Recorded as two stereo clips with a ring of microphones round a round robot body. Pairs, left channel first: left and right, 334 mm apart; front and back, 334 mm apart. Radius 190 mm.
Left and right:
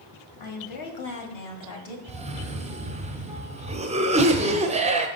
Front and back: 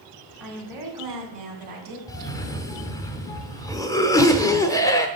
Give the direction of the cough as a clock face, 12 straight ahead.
2 o'clock.